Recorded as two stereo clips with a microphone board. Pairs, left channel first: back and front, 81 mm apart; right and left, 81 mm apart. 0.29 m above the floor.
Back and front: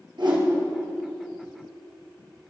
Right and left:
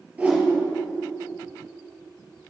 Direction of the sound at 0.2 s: 15° left.